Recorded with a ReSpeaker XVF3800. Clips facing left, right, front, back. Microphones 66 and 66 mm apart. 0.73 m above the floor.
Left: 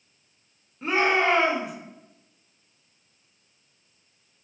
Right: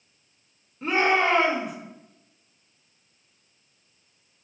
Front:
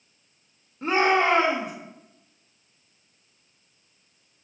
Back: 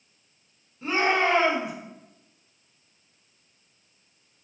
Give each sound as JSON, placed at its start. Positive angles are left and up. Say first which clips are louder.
{"t": 0.8, "sound": "a shout", "louder": "even, front 3 dB", "azimuth_deg": 5, "distance_m": 0.8}